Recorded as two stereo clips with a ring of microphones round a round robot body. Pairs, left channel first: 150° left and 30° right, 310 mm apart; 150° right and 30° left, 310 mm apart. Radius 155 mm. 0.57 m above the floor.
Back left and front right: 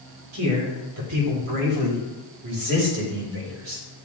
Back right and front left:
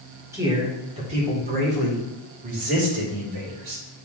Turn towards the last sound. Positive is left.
turn(degrees=5)